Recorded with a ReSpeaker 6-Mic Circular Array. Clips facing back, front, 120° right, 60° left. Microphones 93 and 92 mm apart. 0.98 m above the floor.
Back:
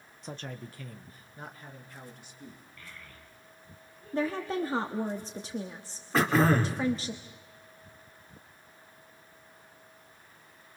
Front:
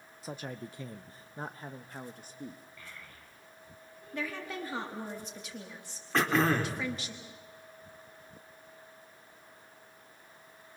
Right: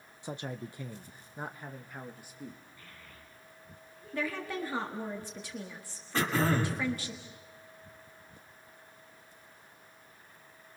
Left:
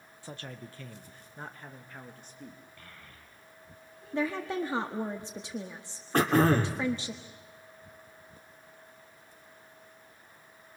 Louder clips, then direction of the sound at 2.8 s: Even, left 1 dB; 80° left.